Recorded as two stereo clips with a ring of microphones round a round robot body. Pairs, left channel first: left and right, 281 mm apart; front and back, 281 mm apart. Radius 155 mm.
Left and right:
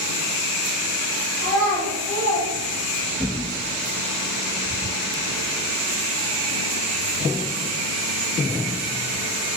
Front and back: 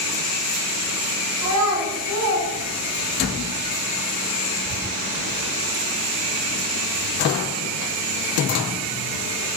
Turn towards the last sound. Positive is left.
turn(degrees=165)